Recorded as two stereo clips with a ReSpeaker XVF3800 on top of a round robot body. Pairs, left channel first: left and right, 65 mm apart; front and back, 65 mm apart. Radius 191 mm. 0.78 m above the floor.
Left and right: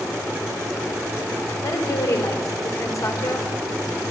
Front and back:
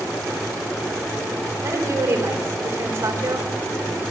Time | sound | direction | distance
1.6 | a woman speaking | 130° left | 4 m